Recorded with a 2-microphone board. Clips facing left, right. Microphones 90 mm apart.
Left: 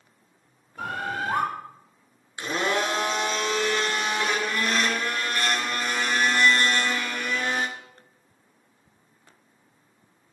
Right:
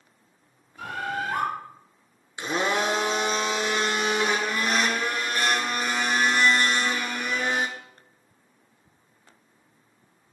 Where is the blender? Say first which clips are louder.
Right 1 dB; 20° right (ahead or behind), 0.8 m.